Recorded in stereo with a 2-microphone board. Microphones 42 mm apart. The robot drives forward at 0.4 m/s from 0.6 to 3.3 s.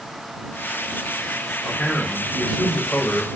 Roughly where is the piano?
I don't hear a piano.